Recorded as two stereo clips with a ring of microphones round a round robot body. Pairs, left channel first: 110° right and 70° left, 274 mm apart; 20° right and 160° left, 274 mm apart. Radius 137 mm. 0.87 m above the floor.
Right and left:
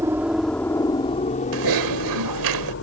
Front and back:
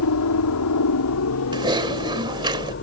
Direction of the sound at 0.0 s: 10° right.